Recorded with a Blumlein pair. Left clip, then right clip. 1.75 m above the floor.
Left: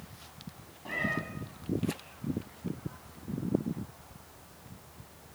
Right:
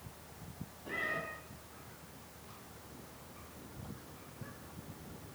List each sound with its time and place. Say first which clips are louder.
0.8 s a cat meowing: left 4 dB; 65° left, 5.5 m